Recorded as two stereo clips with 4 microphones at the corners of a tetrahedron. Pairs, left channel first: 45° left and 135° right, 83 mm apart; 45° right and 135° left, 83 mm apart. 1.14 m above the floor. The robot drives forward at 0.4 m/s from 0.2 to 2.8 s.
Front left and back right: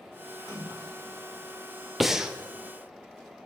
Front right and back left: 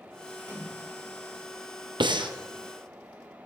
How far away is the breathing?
About 0.5 m.